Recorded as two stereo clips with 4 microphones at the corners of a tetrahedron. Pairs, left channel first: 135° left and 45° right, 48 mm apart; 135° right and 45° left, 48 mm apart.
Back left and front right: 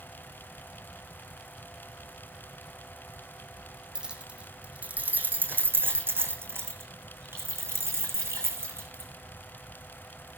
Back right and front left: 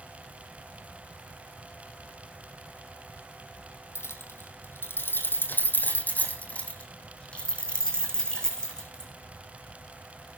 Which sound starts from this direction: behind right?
Keys jangling, at 4.0 s.